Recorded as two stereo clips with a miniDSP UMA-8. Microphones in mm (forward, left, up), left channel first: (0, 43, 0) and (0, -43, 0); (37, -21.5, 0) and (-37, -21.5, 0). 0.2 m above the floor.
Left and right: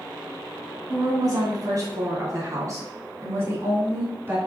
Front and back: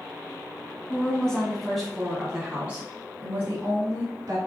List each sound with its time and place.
0.9 s a woman speaking: 75° right, 2 m; by 4.4 s 150° right, 2 m